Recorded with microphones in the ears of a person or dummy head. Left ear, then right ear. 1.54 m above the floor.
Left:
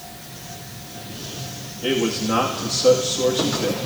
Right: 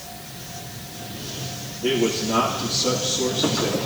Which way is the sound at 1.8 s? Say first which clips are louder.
Even; 70° left (ahead or behind).